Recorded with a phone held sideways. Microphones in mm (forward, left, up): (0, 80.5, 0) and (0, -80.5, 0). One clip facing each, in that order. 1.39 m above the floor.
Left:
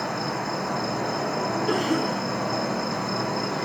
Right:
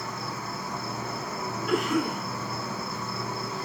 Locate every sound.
0.0 s an insect: 70° left (ahead or behind), 1.0 m
1.7 s a cough: 50° left (ahead or behind), 3.5 m